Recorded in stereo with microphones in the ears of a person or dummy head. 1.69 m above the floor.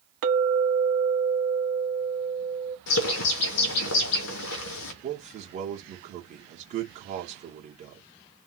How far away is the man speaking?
About 1.4 m.